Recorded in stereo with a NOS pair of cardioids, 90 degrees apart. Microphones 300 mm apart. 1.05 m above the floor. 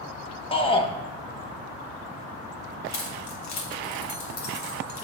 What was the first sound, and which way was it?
A shout, 15° left.